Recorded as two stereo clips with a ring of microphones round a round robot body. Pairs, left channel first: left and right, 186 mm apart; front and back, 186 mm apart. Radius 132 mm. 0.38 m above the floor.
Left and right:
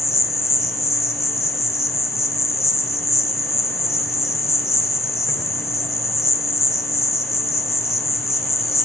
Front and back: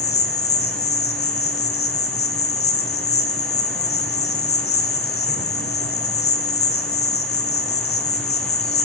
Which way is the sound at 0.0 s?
15° left.